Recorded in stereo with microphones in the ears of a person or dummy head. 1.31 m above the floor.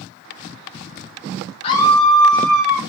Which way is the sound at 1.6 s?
35° left (ahead or behind).